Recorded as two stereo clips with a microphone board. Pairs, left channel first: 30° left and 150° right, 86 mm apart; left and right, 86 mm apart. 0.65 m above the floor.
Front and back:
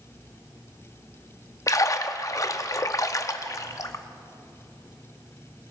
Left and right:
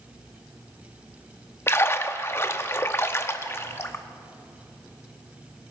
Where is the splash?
45° left, 0.5 m.